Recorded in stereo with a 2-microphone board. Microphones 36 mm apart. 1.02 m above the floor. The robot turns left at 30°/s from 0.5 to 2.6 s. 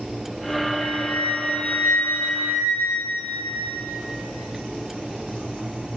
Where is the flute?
145° left, 2 m; by 3.9 s 90° left, 2 m.